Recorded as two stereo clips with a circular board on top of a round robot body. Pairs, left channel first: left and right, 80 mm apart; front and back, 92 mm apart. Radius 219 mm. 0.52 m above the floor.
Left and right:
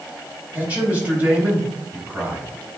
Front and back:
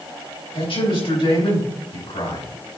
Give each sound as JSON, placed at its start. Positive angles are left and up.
{"t": 0.5, "sound": "a man speaking", "azimuth_deg": -20, "distance_m": 4.0}